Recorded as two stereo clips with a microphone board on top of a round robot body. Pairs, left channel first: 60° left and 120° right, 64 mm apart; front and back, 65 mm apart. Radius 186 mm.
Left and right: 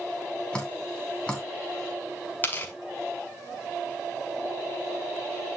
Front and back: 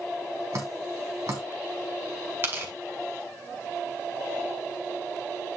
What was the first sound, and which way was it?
Dripping, 135° left.